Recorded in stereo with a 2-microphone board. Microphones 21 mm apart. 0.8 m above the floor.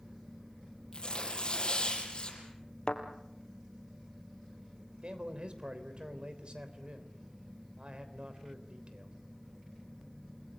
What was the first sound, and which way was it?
Tearing paper, 40° left (ahead or behind).